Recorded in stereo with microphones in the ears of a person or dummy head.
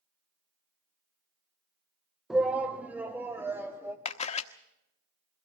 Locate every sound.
2.3 s a shout: 10° right (ahead or behind), 0.6 m; by 4.0 s 15° right (ahead or behind), 1.9 m
4.0 s a camera shutter: 45° left (ahead or behind), 1.0 m